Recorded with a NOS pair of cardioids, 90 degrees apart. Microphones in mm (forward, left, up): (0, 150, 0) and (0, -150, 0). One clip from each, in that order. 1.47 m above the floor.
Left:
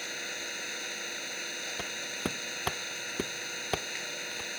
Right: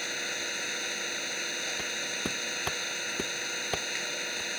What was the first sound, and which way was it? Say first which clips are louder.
An engine running: right 4 dB; 30° right.